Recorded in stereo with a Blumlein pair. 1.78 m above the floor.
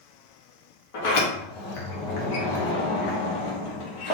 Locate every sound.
0.9 s a sliding door: 45° left, 1.1 m